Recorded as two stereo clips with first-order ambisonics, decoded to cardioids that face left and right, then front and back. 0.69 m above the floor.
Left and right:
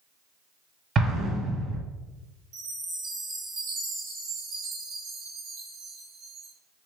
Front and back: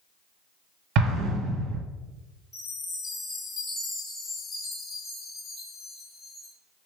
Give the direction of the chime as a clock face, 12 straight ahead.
2 o'clock.